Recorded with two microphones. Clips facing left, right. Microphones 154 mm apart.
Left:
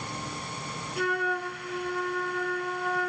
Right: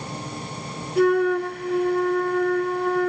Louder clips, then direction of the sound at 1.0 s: Right 12 dB; 55° right (ahead or behind).